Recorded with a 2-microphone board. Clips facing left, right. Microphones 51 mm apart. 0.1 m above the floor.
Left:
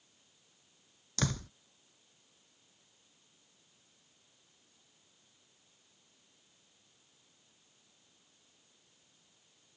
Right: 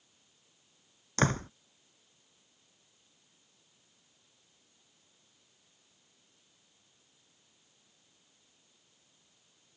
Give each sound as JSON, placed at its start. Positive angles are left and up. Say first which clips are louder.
{"t": 1.2, "sound": "a door slam", "louder": "right 7 dB", "side_deg": -40}